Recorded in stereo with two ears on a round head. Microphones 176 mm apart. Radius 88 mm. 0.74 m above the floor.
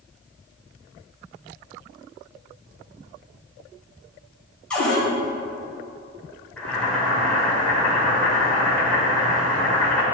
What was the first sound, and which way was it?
A cupboard door, 5° left (ahead or behind).